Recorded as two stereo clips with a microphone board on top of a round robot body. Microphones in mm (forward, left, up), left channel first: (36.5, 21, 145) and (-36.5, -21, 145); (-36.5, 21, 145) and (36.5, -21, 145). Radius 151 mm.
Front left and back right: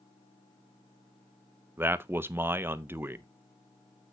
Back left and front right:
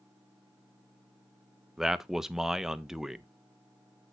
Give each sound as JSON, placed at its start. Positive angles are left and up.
{"t": 1.8, "sound": "a man speaking", "azimuth_deg": -110, "distance_m": 1.0}